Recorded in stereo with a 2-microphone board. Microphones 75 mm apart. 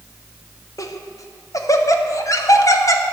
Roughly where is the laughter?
Left.